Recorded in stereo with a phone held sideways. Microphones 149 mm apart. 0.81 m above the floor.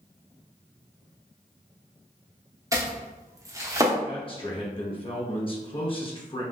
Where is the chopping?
20° right (ahead or behind), 0.8 m.